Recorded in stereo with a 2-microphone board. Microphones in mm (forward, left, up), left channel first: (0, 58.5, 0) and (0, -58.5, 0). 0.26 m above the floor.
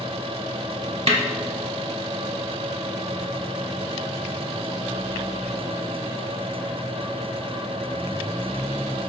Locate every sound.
1.1 s a snare drum: 60° right (ahead or behind), 0.5 m